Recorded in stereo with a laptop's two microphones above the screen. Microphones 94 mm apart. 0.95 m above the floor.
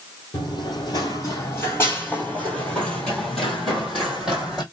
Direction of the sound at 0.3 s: 50° left (ahead or behind).